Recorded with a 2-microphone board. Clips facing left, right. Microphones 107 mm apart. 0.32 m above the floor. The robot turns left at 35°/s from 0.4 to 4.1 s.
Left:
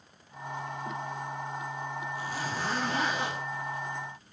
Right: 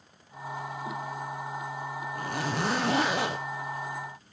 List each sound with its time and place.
2.1 s a zipper: 55° right, 1.4 m; by 3.4 s 100° right, 1.4 m